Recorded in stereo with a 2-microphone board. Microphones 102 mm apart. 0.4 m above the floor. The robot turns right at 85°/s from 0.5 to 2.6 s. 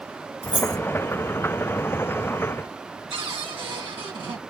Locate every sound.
0.4 s keys jangling: 65° left (ahead or behind), 2.0 m; by 0.8 s 50° left (ahead or behind), 2.0 m
3.1 s a cupboard door: 60° right (ahead or behind), 2 m